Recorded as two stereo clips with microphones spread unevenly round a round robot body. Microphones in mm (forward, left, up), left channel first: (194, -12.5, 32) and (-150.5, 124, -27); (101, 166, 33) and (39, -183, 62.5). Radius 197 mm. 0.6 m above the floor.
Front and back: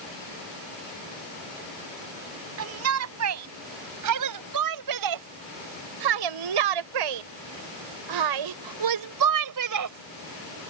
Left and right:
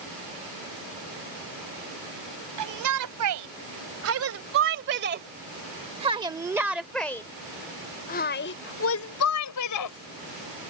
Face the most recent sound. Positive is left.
turn(degrees=110)